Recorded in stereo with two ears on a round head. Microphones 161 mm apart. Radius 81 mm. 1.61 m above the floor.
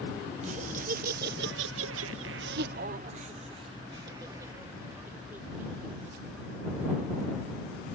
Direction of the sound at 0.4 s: 40° right (ahead or behind).